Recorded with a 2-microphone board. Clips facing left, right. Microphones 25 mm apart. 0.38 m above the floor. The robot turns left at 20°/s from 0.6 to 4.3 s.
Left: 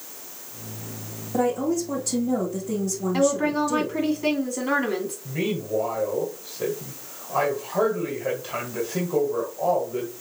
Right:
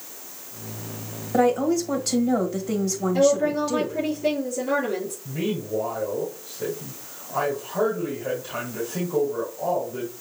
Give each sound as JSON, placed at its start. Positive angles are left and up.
{"t": 1.3, "sound": "a woman speaking", "azimuth_deg": -75, "distance_m": 1.8}
{"t": 3.1, "sound": "a woman speaking", "side_deg": 70, "distance_m": 3.0}
{"t": 5.2, "sound": "a man speaking", "side_deg": 40, "distance_m": 2.0}